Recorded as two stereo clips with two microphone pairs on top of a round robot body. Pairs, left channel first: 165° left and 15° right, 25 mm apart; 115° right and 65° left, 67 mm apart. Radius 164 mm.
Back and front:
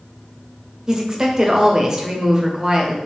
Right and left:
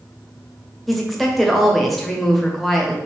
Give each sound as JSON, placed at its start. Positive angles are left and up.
{"t": 0.9, "sound": "a woman speaking", "azimuth_deg": -5, "distance_m": 1.0}